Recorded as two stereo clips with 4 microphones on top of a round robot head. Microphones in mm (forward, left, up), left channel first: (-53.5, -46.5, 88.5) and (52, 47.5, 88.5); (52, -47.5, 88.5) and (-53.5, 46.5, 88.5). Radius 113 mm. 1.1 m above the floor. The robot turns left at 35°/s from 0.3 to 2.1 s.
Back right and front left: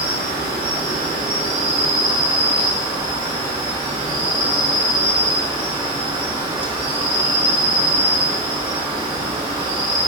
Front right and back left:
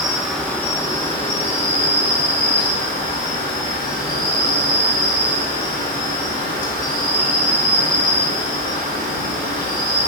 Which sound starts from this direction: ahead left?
An insect, at 0.0 s.